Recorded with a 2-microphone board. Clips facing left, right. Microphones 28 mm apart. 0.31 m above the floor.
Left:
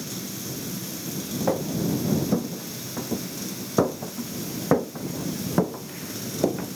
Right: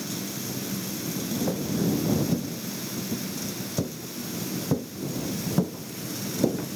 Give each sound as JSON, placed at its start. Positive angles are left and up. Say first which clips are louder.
{"t": 1.5, "sound": "footsteps", "louder": "left 3 dB", "side_deg": 45}